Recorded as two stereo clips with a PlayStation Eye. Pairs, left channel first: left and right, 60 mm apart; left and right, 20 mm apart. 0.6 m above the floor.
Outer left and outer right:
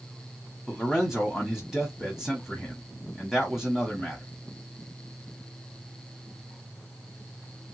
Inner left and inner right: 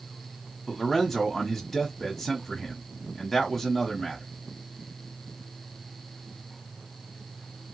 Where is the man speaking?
Centre (ahead or behind), 1.2 m.